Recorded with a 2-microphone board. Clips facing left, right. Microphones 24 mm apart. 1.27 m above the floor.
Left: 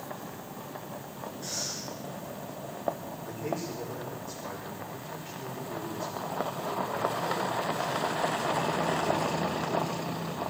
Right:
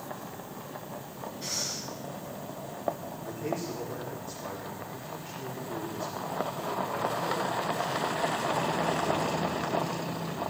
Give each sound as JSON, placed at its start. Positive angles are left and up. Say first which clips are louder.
{"t": 1.4, "sound": "breathing", "louder": "right 2 dB", "side_deg": -60, "distance_m": 6.0}
{"t": 3.2, "sound": "a man speaking", "louder": "even", "side_deg": -20, "distance_m": 4.0}